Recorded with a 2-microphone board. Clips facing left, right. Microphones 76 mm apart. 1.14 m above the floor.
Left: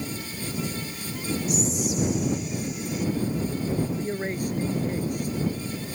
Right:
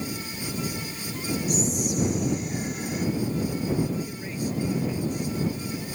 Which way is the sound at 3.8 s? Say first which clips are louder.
Left 1 dB; 50° left (ahead or behind).